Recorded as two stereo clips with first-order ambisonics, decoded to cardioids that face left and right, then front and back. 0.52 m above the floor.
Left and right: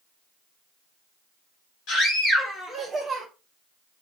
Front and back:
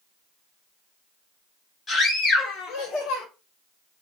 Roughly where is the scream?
Left.